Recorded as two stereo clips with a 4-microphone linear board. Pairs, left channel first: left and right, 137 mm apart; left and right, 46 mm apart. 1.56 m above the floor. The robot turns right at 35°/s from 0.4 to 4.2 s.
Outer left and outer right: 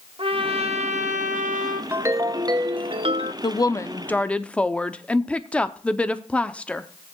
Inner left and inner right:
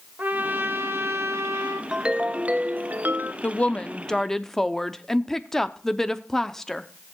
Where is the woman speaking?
35° left (ahead or behind), 0.5 m; by 6.9 s 10° left (ahead or behind), 0.5 m.